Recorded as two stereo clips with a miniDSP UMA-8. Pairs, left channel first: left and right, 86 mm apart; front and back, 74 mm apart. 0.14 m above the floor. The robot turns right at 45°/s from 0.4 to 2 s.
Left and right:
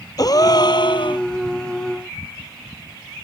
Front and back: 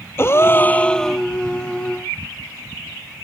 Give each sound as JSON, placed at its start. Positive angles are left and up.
{"t": 0.2, "sound": "a gasp", "azimuth_deg": 55}